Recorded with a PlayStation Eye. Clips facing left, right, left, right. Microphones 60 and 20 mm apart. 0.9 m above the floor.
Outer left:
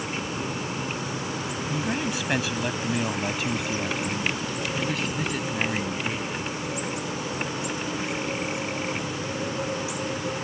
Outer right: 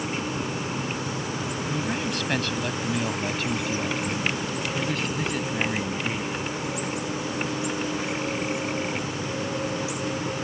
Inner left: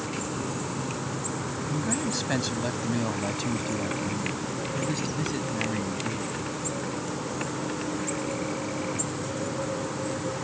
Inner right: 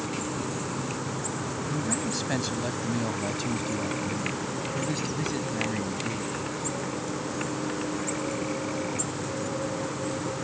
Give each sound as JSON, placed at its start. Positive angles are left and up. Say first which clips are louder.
{"t": 1.7, "sound": "a man speaking", "louder": "outer left 1 dB, inner left 2 dB", "side_deg": 10}